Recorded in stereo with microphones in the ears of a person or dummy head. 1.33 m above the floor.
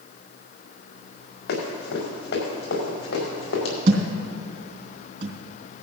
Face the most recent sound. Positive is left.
turn(degrees=-50)  # may be behind; listen again after turning